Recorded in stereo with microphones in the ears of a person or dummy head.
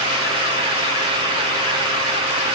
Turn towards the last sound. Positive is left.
No sound to turn to.